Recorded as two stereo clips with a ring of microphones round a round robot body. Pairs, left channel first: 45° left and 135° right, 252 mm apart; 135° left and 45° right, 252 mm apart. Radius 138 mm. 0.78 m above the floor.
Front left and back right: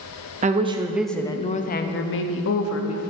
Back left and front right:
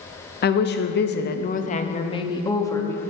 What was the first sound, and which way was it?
A woman speaking, 175° left.